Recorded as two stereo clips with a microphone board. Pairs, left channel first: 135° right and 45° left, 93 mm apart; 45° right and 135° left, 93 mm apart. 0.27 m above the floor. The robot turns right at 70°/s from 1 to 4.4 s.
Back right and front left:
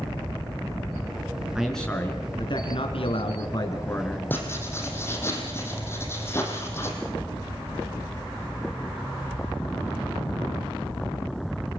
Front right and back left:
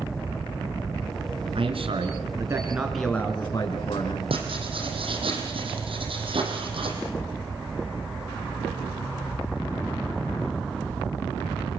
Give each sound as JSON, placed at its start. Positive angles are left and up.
{"t": 1.6, "sound": "a man speaking", "azimuth_deg": 125, "distance_m": 3.5}
{"t": 4.3, "sound": "writing", "azimuth_deg": 155, "distance_m": 5.0}